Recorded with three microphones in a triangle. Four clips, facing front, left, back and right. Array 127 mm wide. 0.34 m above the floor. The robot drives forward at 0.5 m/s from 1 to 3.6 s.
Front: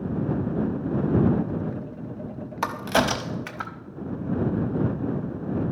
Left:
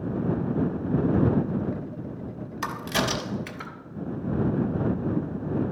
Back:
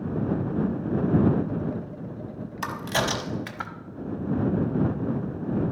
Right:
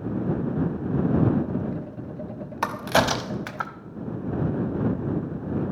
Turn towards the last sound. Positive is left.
turn(degrees=-90)